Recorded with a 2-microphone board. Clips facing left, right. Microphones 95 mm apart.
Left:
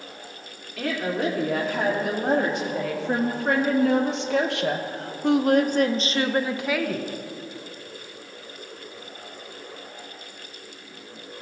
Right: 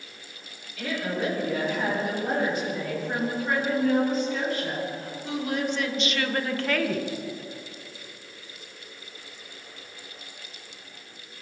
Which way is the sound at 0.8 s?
70° left (ahead or behind).